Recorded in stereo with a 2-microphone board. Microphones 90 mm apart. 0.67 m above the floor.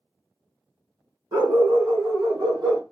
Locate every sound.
1.3 s a dog barking: 50° right (ahead or behind), 3 m; by 2.8 s 45° right (ahead or behind), 1.7 m